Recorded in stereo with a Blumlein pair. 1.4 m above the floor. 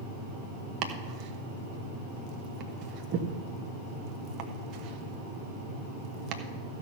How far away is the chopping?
About 1.0 m.